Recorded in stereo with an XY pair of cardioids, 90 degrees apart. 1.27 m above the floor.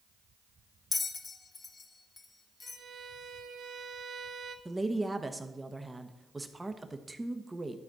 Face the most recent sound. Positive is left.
turn(degrees=-15)